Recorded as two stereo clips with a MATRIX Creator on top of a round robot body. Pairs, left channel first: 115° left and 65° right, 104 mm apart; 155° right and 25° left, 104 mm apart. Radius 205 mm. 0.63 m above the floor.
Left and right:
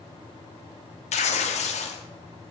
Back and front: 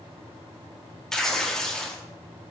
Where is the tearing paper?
120° left, 0.6 m.